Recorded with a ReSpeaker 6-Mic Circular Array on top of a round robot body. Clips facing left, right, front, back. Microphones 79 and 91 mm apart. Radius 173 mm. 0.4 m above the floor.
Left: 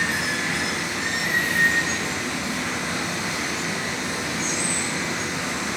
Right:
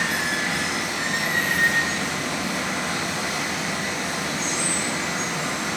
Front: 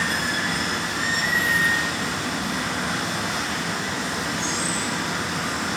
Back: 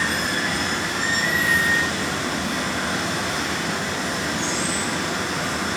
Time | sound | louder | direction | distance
0.0 | running water | even, back 1 dB | 90° right | 1.3 m